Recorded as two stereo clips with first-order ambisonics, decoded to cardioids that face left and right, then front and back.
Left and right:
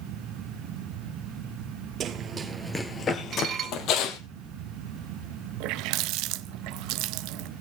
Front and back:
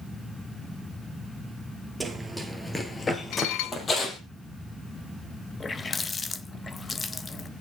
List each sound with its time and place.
2.0 s running footsteps: 100° right, 1.3 m; by 4.2 s 65° left, 2 m
3.3 s dishes clattering: 35° right, 0.6 m
5.6 s a running tap: 75° right, 0.5 m